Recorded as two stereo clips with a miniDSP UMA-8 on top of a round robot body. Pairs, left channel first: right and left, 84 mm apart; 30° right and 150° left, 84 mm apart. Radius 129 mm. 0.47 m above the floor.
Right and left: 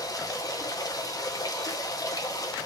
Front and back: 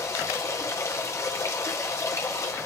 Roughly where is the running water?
Right.